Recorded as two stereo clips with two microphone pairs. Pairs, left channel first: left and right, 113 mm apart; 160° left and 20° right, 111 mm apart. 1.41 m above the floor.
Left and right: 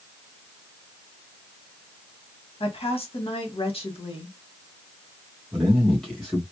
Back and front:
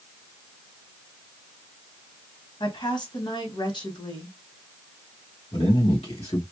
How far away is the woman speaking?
About 1.6 m.